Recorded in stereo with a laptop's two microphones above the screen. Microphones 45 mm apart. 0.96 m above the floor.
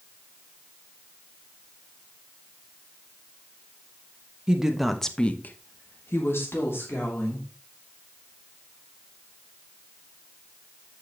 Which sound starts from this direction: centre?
A woman speaking, at 4.5 s.